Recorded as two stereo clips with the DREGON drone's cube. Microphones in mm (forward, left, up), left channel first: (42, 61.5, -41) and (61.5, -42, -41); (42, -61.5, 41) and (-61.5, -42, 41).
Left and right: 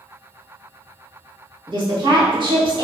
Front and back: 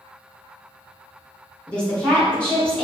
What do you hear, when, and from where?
1.7 s a woman speaking: 90° right, 1.2 m